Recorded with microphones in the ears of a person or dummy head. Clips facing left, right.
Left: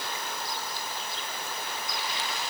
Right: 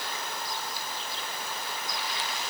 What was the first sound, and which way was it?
Only background noise.